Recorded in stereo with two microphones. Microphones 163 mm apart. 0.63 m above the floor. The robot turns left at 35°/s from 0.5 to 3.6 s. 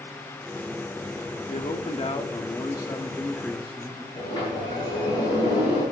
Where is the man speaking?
75° left, 1.4 m; by 4.0 s 5° left, 1.4 m.